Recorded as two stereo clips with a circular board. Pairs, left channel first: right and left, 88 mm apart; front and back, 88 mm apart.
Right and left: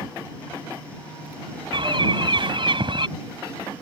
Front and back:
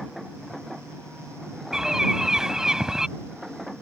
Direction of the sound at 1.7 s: 95° left.